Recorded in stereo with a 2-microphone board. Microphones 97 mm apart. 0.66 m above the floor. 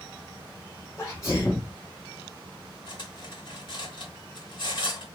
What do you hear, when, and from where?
1.0 s a sneeze: 35° left (ahead or behind), 1.3 m
2.9 s cutlery clinking: 55° left (ahead or behind), 2.0 m